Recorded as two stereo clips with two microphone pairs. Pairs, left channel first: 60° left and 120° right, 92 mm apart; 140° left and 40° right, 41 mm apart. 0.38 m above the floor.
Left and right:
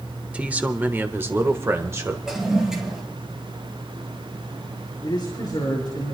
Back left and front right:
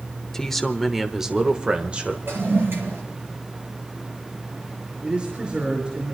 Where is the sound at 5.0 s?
20° left, 5.5 m.